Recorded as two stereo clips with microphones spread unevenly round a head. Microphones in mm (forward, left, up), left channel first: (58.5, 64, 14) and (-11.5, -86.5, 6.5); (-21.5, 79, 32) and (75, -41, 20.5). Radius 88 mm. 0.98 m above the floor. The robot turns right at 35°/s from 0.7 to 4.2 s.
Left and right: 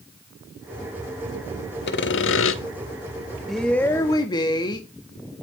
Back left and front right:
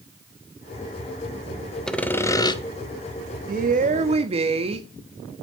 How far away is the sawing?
About 1.4 m.